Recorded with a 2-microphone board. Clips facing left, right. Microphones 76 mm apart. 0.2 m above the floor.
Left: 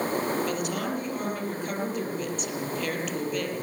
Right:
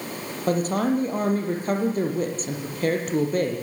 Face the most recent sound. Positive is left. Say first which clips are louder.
# right 7 dB
turn(degrees=-35)  # may be behind; listen again after turning